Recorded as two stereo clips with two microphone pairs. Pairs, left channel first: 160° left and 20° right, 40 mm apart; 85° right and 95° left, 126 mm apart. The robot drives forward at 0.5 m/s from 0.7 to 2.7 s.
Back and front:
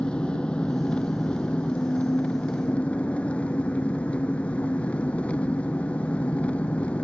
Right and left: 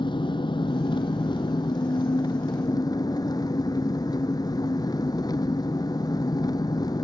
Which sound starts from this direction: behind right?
An engine running, at 0.0 s.